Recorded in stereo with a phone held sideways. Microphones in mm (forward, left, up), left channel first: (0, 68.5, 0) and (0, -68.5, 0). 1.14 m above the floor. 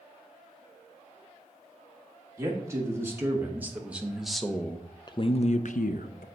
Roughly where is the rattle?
I don't hear a rattle.